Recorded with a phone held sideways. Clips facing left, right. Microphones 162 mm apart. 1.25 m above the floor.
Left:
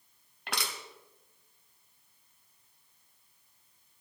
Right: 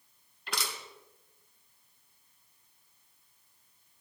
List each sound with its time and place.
0.5 s crushing: 65° left (ahead or behind), 2.5 m